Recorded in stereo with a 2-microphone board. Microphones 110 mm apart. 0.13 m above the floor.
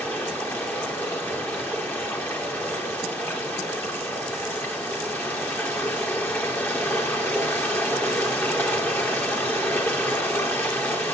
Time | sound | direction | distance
0.0 | running water | 20° left (ahead or behind) | 3 m